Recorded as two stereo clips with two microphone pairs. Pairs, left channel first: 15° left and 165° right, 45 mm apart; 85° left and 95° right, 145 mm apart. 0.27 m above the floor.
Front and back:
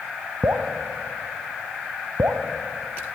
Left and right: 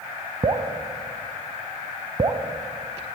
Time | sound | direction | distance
0.4 | dripping | 155° right | 0.5 m